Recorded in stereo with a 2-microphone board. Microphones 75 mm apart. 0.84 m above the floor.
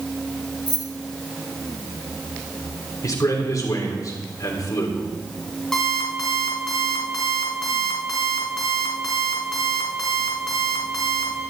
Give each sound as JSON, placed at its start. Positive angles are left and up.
{"t": 0.7, "sound": "keys jangling", "side_deg": 60, "distance_m": 1.5}
{"t": 3.0, "sound": "a man speaking", "side_deg": 50, "distance_m": 3.0}
{"t": 5.7, "sound": "an alarm clock", "side_deg": 5, "distance_m": 3.5}